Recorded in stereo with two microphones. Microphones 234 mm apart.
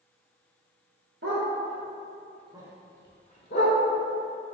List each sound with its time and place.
1.2 s a dog barking: 60° right (ahead or behind), 1.1 m; by 3.8 s 55° left (ahead or behind), 0.7 m